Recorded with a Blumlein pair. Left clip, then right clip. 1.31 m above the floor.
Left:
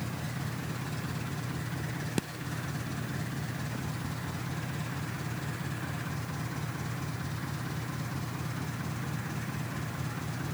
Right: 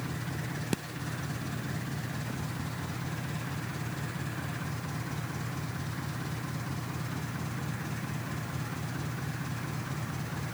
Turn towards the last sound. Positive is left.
No sound to turn to.